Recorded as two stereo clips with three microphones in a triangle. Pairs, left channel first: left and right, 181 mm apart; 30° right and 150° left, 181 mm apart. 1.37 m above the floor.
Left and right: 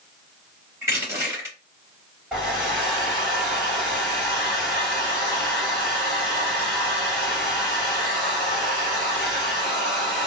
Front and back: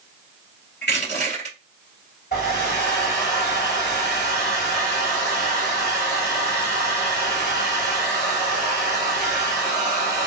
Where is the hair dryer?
5° right, 2 m.